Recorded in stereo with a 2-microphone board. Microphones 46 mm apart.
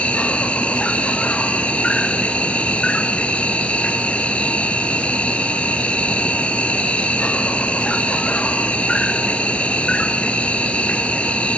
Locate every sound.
0.0 s an insect: 25° left (ahead or behind), 1.0 m